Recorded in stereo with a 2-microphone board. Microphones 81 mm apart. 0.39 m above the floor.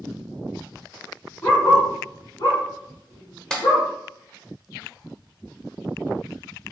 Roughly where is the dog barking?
Left.